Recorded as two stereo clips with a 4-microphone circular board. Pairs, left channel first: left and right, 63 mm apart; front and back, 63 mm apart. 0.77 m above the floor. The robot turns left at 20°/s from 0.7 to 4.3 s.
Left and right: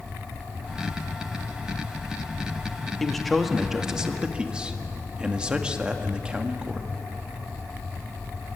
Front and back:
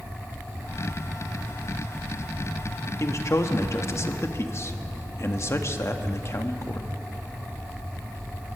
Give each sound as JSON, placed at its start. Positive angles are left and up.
{"t": 3.0, "sound": "a man speaking", "azimuth_deg": 5, "distance_m": 1.4}